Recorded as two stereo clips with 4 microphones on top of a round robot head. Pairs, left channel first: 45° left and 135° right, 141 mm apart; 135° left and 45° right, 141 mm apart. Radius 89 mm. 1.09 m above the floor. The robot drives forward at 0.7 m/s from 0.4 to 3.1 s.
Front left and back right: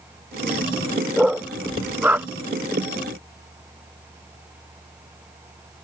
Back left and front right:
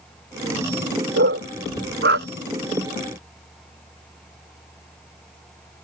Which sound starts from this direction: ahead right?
A dog barking, at 1.2 s.